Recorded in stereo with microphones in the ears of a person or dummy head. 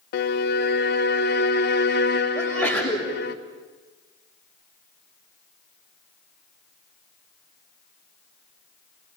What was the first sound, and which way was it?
A violin, 35° left (ahead or behind).